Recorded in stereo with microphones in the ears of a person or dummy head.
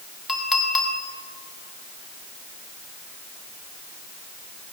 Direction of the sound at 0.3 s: Centre (ahead or behind).